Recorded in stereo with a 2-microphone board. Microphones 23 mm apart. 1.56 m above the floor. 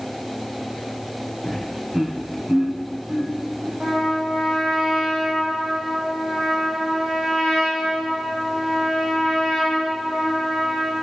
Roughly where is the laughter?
Centre.